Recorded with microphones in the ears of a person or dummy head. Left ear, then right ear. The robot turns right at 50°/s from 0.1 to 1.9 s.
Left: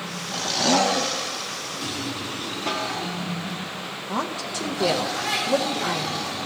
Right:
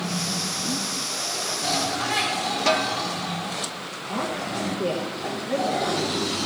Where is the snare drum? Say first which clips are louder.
Right 5 dB; 30° right (ahead or behind), 1.3 m.